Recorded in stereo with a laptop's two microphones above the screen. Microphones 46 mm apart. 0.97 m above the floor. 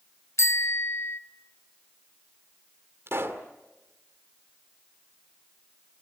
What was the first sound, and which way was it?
A bicycle bell, 80° left.